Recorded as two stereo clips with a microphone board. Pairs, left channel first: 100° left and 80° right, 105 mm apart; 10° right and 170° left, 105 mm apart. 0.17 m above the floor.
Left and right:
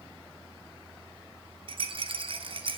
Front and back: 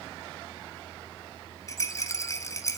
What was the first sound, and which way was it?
A rattle, 70° right.